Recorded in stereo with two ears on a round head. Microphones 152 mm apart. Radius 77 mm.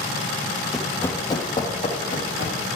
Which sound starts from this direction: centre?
Running footsteps, at 0.7 s.